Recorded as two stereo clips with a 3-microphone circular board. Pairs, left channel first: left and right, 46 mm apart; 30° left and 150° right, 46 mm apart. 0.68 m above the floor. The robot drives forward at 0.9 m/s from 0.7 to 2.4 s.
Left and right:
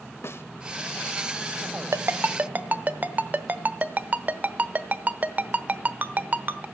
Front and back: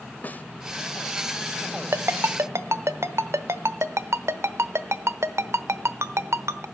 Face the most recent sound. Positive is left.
turn(degrees=-140)